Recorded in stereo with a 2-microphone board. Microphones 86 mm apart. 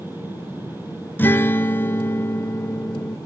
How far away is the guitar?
About 0.7 m.